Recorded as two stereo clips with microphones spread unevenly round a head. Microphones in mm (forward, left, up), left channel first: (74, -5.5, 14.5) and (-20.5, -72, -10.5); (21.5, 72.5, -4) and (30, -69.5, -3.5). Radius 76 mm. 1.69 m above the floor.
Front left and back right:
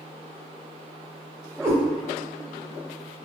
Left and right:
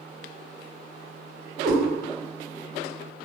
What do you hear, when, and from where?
1.6 s a cat meowing: 115° right, 1.3 m